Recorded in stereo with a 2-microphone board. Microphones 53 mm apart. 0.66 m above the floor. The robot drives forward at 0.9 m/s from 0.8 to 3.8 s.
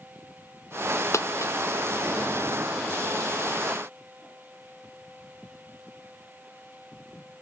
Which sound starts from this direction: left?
A dropped coin, at 1.1 s.